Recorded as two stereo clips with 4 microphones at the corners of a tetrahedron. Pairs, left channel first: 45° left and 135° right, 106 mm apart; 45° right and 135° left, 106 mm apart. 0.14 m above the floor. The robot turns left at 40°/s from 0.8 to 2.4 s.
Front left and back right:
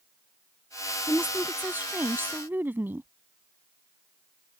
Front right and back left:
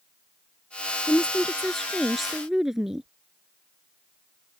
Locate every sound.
1.1 s a woman speaking: 95° right; by 3.1 s 150° right